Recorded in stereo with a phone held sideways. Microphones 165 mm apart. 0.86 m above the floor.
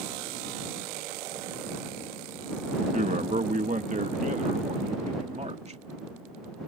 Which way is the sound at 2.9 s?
50° right (ahead or behind).